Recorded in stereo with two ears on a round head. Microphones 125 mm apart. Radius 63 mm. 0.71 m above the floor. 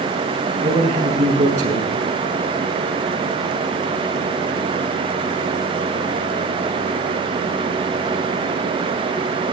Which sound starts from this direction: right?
A man speaking, at 0.6 s.